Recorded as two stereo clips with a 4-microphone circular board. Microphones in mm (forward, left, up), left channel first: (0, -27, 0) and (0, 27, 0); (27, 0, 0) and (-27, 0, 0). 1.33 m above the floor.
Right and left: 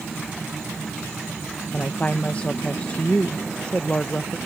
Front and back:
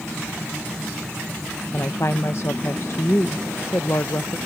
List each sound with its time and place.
1.7 s a woman speaking: 25° right